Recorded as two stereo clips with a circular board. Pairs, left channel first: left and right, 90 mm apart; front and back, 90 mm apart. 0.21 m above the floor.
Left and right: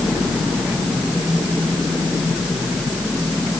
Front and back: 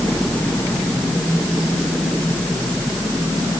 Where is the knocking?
No knocking in this recording.